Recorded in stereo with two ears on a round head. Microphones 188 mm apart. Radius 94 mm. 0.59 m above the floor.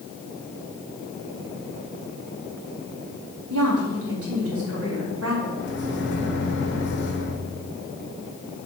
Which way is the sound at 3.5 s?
75° right (ahead or behind).